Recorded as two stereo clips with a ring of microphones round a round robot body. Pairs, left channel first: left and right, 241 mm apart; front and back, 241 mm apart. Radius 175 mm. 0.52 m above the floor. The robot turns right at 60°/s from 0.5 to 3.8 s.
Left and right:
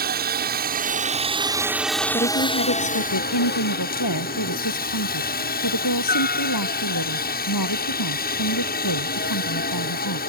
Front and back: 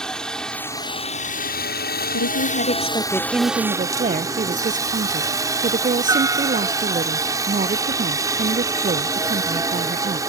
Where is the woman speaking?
25° left; by 10.2 s 125° left.